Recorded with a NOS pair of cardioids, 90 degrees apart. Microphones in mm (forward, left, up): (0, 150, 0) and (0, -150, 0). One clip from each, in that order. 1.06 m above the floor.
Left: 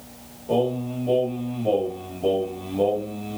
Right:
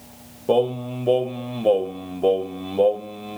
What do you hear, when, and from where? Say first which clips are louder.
0.5 s singing: right 3 dB; 60° right, 1.2 m